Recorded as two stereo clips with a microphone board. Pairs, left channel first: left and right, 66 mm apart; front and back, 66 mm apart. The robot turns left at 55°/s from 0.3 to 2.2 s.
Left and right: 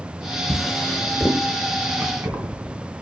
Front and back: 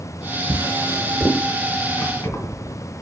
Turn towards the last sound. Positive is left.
turn(degrees=-40)